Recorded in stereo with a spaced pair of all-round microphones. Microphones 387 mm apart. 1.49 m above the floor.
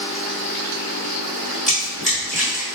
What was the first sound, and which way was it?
Running footsteps, 20° left (ahead or behind).